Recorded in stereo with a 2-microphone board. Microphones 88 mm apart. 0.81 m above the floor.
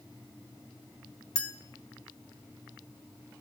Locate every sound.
1.4 s a clink: 10° left (ahead or behind), 0.9 m